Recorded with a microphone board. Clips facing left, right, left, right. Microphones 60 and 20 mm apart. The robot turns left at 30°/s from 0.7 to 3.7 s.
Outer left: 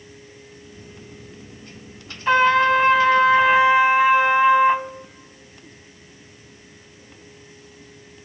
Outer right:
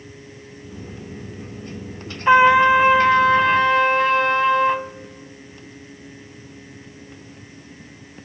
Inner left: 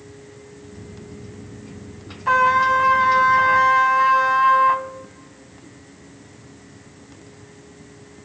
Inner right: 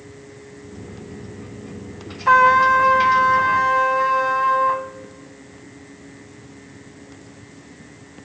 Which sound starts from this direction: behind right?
A trumpet, at 2.3 s.